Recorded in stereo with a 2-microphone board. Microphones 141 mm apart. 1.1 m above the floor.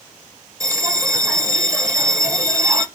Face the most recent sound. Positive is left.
turn(degrees=-25)  # may be behind; listen again after turning